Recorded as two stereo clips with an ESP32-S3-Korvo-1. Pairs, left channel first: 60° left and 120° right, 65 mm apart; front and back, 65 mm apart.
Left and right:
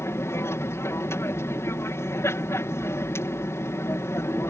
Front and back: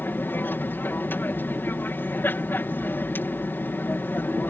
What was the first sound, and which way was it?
An aircraft, 45° left.